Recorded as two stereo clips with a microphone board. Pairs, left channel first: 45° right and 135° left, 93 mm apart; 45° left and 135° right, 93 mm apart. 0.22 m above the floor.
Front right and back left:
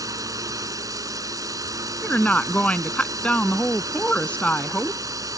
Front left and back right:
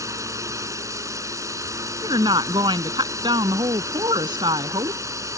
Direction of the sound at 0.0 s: 175° left.